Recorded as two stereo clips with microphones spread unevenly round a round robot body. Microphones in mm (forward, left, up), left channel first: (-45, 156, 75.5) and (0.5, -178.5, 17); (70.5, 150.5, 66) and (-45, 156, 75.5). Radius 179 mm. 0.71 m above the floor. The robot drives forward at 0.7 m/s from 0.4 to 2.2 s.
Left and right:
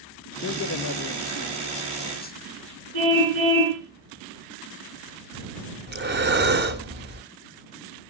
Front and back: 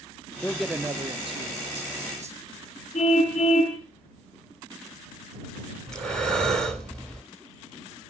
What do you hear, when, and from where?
0.4 s a man speaking: 60° left, 0.7 m; by 2.4 s 165° left, 1.3 m
2.9 s a car horn: 55° right, 9.5 m
5.9 s breathing: 140° right, 1.7 m